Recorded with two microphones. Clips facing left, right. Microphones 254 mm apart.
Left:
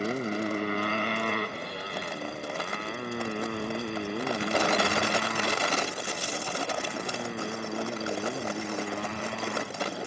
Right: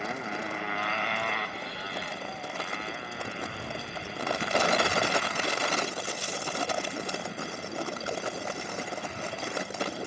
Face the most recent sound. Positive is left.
turn(degrees=70)  # may be behind; listen again after turning